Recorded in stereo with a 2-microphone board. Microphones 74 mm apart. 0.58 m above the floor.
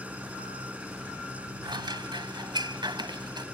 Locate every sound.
0.0 s an engine running: 20° right (ahead or behind)
1.6 s scissors: 80° right